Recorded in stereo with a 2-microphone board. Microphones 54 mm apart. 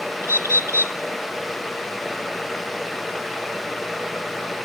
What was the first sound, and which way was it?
A bird, 55° right (ahead or behind).